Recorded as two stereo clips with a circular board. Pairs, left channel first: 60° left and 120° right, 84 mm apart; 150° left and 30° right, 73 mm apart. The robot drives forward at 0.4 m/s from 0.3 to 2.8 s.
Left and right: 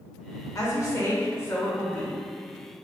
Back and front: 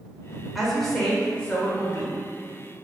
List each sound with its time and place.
0.6 s a woman speaking: 55° left, 1.0 m; by 2.2 s 115° left, 1.0 m